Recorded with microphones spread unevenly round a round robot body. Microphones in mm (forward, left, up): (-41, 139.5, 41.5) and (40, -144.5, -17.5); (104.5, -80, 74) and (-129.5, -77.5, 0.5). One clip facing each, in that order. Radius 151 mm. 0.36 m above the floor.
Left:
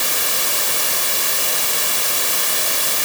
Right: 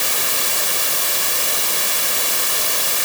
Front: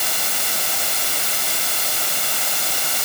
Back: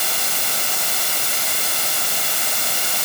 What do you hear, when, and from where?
Only background noise.